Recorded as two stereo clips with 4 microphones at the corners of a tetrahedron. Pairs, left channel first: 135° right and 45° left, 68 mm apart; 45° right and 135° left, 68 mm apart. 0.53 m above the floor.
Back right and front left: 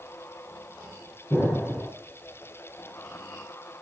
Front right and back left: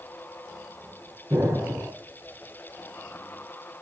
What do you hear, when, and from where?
1.3 s an explosion: 170° left, 5 m